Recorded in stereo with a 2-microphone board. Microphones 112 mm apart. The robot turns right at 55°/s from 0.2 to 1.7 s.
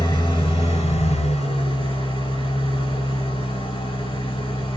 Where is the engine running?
45° left, 0.7 m; by 4.8 s 125° left, 0.7 m.